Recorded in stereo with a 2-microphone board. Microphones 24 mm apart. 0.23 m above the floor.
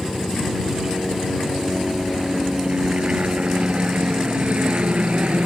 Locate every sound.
0.0 s a helicopter: 25° right (ahead or behind); by 5.5 s 60° right (ahead or behind)